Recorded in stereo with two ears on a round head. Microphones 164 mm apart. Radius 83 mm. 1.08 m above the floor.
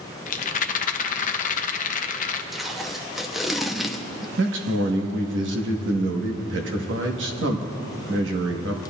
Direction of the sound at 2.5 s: Centre (ahead or behind).